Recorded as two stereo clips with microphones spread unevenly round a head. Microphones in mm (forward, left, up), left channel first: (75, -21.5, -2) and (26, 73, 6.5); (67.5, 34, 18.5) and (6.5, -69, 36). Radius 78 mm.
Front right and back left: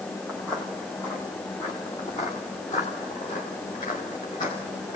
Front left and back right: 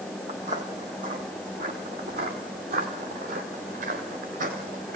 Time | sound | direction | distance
0.3 | footsteps | 155° right | 1.8 m